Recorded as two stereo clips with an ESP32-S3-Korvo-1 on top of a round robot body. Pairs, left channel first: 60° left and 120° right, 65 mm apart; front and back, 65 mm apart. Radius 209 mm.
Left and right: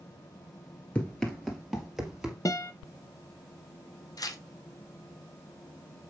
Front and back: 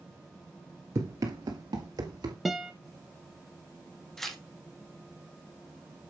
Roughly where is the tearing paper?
Left.